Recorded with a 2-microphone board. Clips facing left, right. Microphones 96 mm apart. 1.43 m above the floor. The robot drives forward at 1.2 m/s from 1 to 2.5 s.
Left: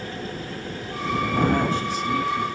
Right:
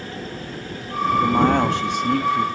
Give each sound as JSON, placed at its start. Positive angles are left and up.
{"t": 1.2, "sound": "a man speaking", "side_deg": -85, "distance_m": 2.5}